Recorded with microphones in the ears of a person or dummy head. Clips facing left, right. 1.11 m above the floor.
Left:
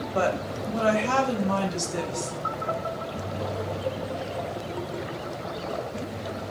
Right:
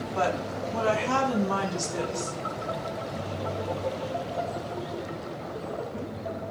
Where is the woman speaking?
80° left, 5 m; by 2.3 s 75° left (ahead or behind), 7 m.